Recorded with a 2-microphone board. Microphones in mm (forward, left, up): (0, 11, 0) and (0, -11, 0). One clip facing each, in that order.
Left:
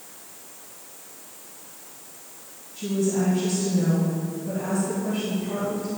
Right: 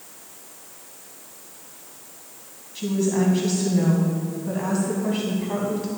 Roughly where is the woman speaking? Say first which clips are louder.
Right 2 dB; right.